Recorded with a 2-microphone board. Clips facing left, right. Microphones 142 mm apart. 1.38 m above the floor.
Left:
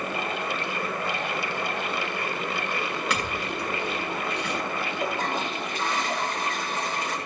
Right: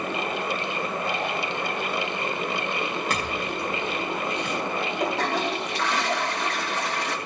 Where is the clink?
45° right (ahead or behind), 9.5 m.